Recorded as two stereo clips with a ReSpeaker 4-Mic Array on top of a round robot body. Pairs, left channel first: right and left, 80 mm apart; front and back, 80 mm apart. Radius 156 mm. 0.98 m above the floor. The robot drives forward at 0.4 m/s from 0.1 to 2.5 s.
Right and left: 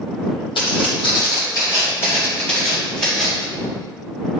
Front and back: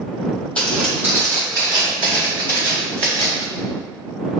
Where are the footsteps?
80° right, 2.0 m; by 3.5 s 170° right, 5 m.